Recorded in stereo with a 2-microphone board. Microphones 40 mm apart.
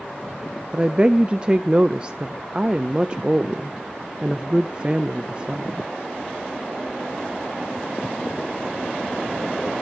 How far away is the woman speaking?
About 0.6 m.